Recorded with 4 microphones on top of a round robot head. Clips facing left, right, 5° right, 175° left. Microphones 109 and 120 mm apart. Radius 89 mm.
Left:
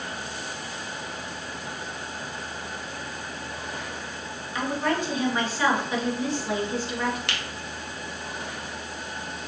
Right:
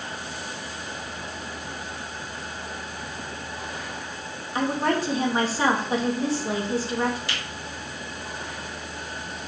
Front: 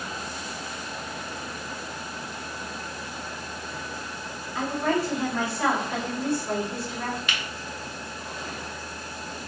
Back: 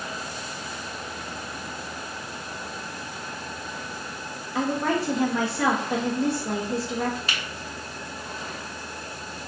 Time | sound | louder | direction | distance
4.5 | a woman speaking | right 3 dB, back 1 dB | 145° right | 2 m
7.3 | a finger snap | even, even | 120° left | 1.6 m